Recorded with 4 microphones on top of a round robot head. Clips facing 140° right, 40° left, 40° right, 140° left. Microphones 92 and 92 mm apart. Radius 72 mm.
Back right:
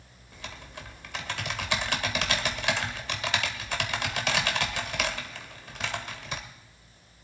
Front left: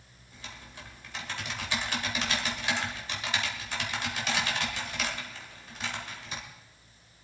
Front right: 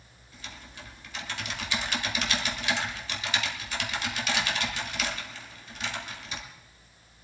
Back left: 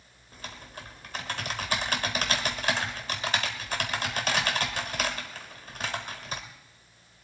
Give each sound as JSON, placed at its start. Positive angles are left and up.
{"t": 0.3, "sound": "typing on a keyboard", "azimuth_deg": -170, "distance_m": 1.6}